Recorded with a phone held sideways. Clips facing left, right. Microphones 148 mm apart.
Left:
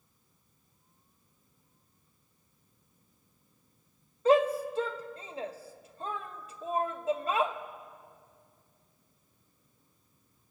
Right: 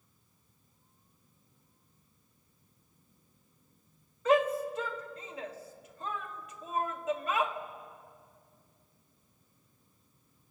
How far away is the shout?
About 1.4 m.